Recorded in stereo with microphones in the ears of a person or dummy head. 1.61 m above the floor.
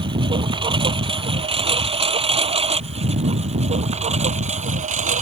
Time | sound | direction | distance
0.0 | a lawn mower | 25° right (ahead or behind) | ?